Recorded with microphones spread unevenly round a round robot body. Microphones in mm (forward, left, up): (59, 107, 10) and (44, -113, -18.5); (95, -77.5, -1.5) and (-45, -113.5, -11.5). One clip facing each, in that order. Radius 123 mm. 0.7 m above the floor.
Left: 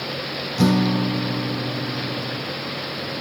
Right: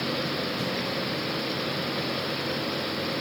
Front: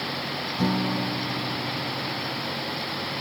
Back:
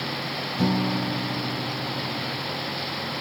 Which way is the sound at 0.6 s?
105° left.